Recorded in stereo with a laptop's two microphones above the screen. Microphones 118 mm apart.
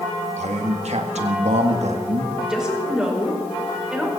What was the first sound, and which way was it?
A man speaking, 70° right (ahead or behind).